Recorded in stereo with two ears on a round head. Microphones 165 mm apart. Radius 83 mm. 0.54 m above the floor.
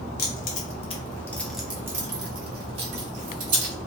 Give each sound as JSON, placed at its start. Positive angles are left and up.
{"t": 0.2, "sound": "keys jangling", "side_deg": 55, "distance_m": 0.9}